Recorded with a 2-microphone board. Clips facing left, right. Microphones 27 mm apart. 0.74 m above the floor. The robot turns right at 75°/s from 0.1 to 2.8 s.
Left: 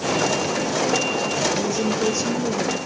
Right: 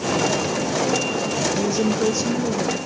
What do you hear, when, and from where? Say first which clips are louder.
1.6 s a woman speaking: right 1 dB; 55° right, 0.7 m; by 2.8 s 35° left, 0.7 m